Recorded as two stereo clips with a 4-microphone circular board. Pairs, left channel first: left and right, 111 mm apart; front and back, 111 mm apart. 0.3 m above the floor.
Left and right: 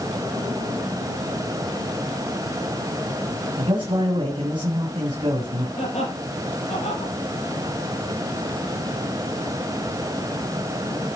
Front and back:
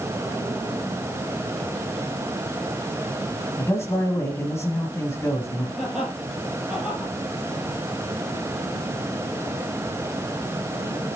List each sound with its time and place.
3.6 s a man speaking: 60° right, 2 m
5.8 s laughter: 95° left, 7.5 m